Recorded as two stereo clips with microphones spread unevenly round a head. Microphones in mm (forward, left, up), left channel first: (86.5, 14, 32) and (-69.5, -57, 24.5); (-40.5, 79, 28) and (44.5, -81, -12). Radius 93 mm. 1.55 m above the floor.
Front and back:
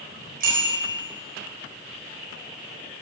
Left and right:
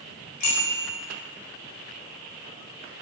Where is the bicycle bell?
160° left, 4.5 m.